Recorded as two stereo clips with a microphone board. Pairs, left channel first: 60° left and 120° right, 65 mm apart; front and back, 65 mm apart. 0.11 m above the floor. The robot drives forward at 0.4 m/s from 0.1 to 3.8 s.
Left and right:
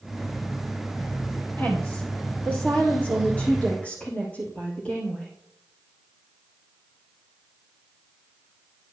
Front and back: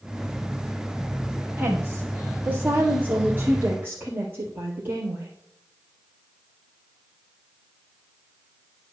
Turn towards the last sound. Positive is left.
turn(degrees=125)